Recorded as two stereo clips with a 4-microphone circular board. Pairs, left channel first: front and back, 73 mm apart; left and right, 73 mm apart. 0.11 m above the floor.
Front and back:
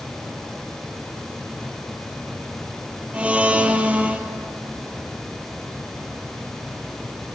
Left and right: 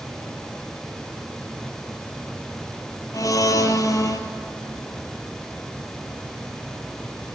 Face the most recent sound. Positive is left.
turn(degrees=110)